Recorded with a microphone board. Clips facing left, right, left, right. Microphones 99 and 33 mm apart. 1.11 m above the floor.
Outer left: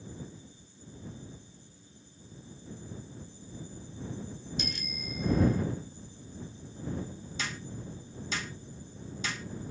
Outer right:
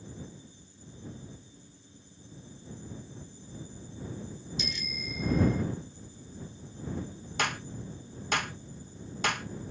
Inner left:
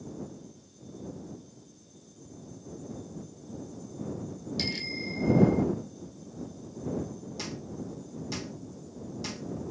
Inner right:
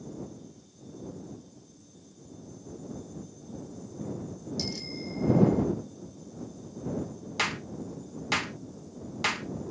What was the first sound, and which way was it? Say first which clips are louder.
A bicycle bell: outer right 1 dB, inner left 5 dB; 50° left (ahead or behind).